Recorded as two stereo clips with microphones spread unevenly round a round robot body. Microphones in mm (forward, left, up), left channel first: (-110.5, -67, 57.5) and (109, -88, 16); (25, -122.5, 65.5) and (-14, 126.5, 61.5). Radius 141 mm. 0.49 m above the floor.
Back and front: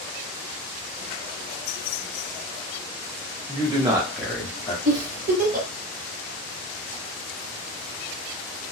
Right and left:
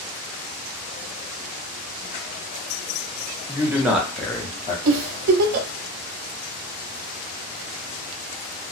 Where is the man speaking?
25° left, 1.1 m; by 4.8 s 130° right, 0.9 m.